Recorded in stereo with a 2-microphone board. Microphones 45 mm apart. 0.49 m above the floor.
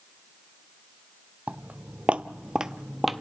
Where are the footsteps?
30° right (ahead or behind), 0.8 m; by 3.2 s centre (ahead or behind), 0.7 m.